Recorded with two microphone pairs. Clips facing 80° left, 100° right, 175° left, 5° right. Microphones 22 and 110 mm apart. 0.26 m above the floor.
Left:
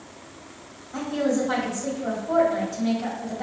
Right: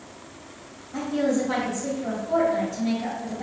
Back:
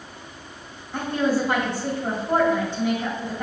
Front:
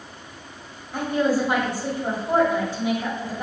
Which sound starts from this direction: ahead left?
A woman speaking, at 0.9 s.